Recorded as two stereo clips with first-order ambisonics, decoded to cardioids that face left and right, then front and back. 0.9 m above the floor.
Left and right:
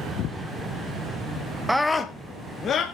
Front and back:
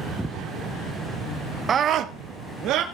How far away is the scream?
About 0.6 m.